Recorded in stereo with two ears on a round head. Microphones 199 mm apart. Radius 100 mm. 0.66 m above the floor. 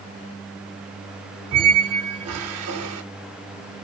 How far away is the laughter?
No laughter in this recording.